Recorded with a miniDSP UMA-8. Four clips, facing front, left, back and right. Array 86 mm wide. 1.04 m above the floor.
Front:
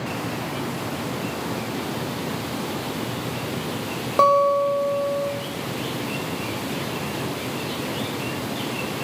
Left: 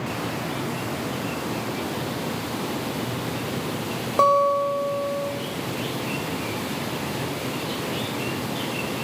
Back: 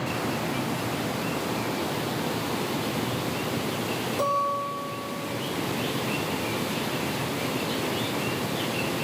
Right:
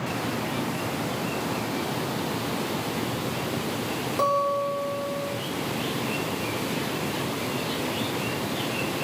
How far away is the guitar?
About 1.0 m.